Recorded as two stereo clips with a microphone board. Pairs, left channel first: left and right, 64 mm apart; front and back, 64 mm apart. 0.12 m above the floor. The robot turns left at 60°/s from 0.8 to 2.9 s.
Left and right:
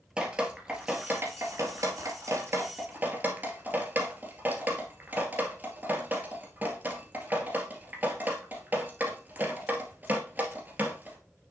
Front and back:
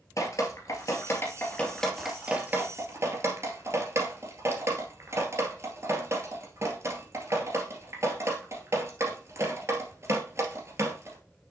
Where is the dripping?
20° right, 2 m; by 11.2 s 145° right, 2 m.